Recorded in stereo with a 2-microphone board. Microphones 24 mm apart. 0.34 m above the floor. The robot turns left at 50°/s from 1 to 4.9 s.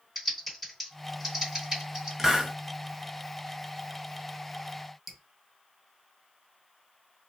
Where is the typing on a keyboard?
5° right (ahead or behind), 1.8 m; by 2.1 s 40° right (ahead or behind), 1.8 m.